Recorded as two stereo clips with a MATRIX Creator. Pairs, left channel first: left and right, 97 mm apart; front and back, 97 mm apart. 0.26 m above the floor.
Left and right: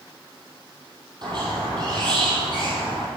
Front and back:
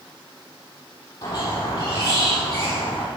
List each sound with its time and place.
1.2 s a squeak: 50° right, 5.5 m